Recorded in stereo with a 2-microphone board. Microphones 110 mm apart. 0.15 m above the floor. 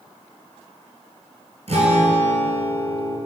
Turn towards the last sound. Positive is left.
turn(degrees=-65)  # may be behind; listen again after turning